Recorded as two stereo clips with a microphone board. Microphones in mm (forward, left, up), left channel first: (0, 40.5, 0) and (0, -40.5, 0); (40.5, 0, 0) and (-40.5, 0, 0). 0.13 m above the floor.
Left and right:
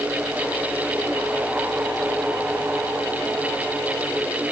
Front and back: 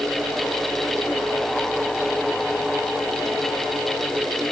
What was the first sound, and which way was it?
Only background noise.